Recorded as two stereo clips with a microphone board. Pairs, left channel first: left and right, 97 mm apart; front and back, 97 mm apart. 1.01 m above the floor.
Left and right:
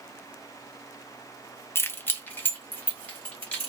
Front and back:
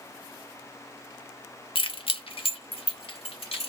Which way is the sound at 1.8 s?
25° left.